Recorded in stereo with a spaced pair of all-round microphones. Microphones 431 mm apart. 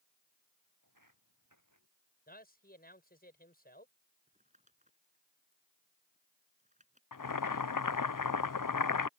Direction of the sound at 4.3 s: 15° right (ahead or behind).